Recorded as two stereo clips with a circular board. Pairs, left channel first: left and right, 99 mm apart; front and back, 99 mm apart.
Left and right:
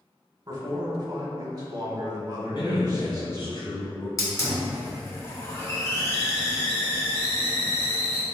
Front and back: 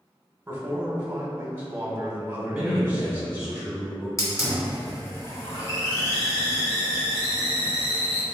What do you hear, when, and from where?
0.5 s a man speaking: 115° right, 1.1 m
2.5 s a man speaking: 100° left, 1.8 m
4.2 s a hiss: 50° left, 1.0 m